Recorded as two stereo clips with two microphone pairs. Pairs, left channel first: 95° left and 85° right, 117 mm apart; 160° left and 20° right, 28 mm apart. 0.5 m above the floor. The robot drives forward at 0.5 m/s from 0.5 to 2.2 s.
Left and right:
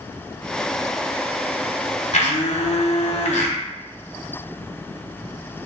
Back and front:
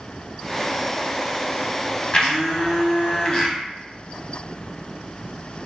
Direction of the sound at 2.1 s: 105° left.